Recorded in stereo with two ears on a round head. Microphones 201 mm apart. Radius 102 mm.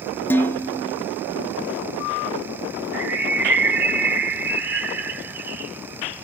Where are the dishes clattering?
10° left (ahead or behind), 0.6 m.